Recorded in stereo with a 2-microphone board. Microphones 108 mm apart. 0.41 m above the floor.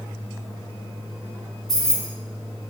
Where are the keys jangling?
35° right (ahead or behind), 2.5 m.